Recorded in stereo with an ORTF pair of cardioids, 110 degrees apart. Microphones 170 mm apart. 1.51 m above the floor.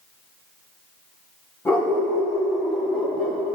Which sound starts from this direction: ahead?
A dog barking, at 1.6 s.